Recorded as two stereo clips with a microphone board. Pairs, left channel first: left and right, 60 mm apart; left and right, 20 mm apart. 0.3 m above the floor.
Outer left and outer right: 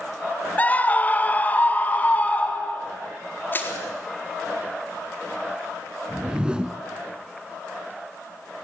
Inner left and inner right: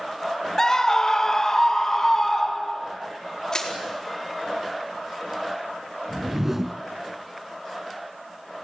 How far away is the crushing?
About 4 m.